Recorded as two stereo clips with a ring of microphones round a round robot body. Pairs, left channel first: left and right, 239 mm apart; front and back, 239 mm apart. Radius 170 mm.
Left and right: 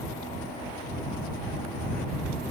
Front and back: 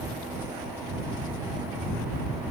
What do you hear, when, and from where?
Only background noise.